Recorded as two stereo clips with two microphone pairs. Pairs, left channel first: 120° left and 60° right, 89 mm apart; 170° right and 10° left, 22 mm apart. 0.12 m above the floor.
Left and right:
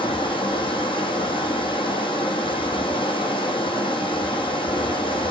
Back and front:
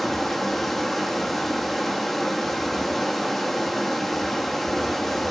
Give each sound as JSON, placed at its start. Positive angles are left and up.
{"t": 0.0, "sound": "running water", "azimuth_deg": 110, "distance_m": 1.8}